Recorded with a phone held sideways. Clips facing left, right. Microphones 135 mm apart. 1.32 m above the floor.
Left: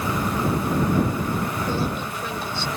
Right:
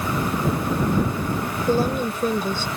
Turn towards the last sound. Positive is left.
turn(degrees=-45)  # may be behind; listen again after turning